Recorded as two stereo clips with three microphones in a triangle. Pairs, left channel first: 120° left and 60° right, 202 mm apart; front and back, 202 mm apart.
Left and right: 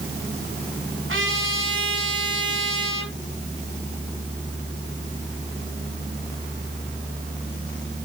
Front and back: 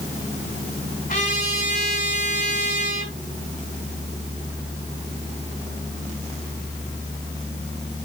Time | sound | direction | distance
1.1 | a trumpet | 50° right | 4.5 m